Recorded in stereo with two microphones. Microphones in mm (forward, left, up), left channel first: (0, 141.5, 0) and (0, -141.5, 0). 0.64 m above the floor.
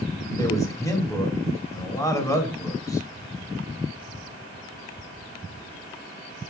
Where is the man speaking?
10° left (ahead or behind), 2.0 m.